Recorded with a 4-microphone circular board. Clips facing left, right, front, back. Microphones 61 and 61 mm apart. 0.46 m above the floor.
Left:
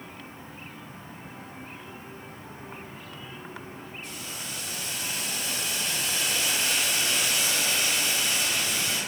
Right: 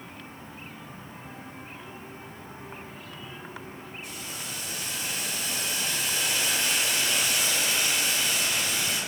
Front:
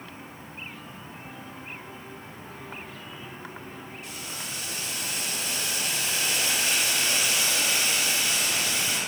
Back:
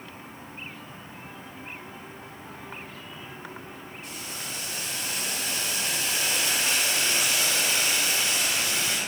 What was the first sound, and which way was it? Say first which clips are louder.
Boiling: right 1 dB, back 2 dB; 160° right.